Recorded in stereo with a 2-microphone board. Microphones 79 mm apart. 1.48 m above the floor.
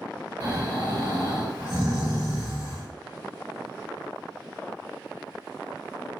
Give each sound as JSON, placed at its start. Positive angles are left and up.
{"t": 0.4, "sound": "snoring", "side_deg": -20, "distance_m": 2.0}